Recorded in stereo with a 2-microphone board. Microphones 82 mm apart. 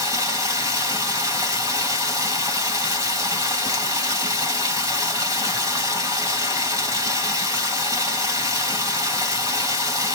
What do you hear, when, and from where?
0.0 s running water: 50° right (ahead or behind), 2 m